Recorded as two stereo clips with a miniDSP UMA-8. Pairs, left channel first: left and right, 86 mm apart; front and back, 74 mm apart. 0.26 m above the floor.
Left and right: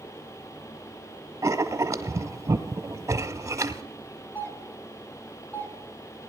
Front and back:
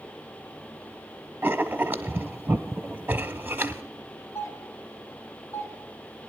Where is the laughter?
I don't hear laughter.